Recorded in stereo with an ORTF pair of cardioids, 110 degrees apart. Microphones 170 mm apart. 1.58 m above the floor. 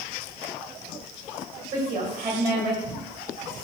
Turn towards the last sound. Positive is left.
turn(degrees=-50)